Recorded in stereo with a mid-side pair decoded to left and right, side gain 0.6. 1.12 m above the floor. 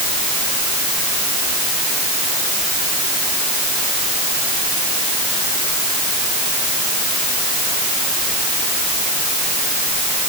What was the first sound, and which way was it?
Only background noise.